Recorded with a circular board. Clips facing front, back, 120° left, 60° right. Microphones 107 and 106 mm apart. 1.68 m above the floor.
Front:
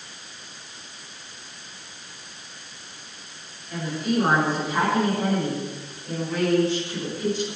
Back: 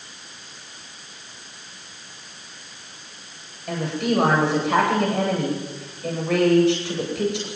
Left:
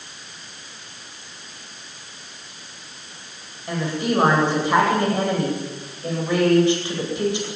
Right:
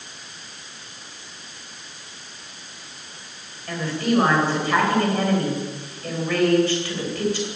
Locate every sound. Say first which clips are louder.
3.7 s a woman speaking: back 3 dB, even; 165° right, 10 m